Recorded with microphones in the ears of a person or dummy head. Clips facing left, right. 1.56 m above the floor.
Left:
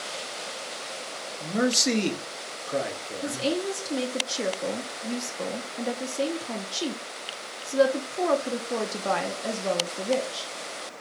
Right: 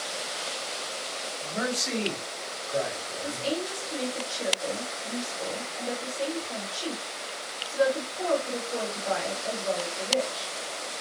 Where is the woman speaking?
70° left (ahead or behind), 0.7 m.